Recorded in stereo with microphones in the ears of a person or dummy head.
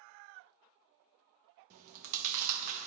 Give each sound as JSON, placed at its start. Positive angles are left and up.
{"t": 1.7, "sound": "chewing", "side_deg": -40, "distance_m": 0.6}